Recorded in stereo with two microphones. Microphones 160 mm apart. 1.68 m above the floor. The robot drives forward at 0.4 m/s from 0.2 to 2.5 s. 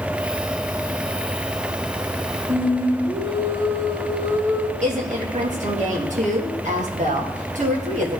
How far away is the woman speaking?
About 2 m.